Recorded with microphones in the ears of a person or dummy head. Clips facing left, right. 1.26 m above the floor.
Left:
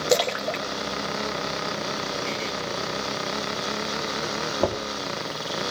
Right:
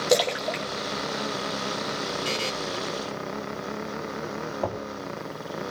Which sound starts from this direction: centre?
A splash, at 0.1 s.